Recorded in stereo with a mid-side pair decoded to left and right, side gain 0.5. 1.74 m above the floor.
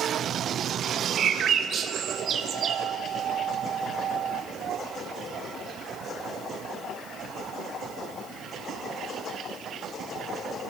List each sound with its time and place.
1.2 s a bird: 50° right, 0.7 m